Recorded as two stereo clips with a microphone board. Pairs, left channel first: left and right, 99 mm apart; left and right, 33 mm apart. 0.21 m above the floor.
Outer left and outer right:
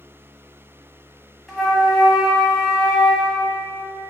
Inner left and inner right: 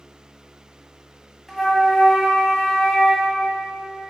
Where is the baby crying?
I don't hear a baby crying.